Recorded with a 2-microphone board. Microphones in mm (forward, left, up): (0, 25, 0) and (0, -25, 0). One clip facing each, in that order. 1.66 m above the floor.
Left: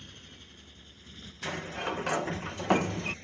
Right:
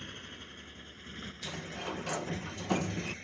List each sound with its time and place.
0.0 s a motorcycle: 45° right (ahead or behind); by 3.2 s 40° right (ahead or behind)
1.4 s a sliding door: 60° left (ahead or behind)